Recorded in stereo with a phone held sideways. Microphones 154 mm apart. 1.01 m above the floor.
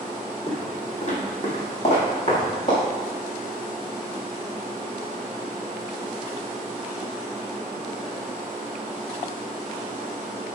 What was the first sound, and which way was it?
Footsteps, 45° left (ahead or behind).